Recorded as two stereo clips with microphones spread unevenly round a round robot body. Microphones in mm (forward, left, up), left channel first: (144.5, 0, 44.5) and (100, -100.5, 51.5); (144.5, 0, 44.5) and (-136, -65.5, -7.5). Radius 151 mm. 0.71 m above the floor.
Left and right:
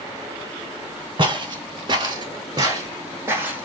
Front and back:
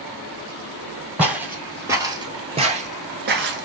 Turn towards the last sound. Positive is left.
turn(degrees=-170)